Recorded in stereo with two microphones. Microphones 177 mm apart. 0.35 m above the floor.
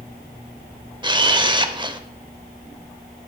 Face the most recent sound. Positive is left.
turn(degrees=-25)  # may be behind; listen again after turning